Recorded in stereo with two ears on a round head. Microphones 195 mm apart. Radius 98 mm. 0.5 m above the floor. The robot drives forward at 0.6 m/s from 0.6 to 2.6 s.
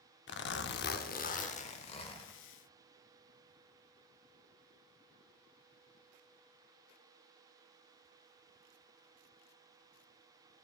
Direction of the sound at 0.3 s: 50° left (ahead or behind).